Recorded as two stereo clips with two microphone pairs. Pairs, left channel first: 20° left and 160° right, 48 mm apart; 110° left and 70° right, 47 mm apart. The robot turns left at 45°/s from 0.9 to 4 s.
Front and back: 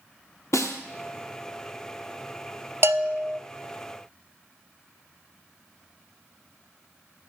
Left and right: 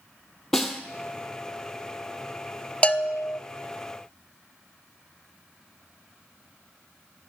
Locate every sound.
0.5 s a snare drum: 30° left, 1.1 m
2.8 s a bell: 175° left, 0.5 m; by 3.4 s 145° left, 0.5 m